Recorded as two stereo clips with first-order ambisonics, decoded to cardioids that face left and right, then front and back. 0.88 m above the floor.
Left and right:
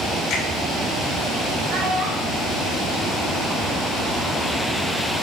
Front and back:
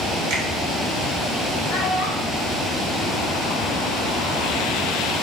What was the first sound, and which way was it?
A finger snap, 140° left.